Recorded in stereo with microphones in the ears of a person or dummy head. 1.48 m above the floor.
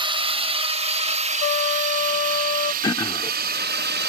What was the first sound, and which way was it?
A drone, 25° right (ahead or behind).